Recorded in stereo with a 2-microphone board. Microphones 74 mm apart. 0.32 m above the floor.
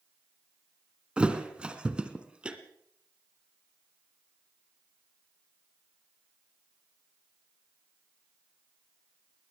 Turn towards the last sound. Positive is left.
turn(degrees=-10)  # may be behind; listen again after turning